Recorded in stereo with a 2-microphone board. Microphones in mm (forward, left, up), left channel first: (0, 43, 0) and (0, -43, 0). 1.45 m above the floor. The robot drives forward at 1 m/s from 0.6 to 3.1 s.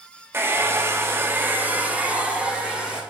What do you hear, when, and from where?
0.3 s a hair dryer: 25° right (ahead or behind), 1.0 m; by 3.0 s 10° right (ahead or behind), 2.5 m